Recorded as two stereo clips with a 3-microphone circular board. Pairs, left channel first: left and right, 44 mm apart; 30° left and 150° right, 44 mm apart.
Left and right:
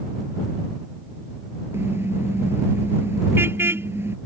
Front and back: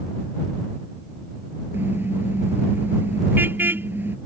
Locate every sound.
1.7 s a car horn: 115° right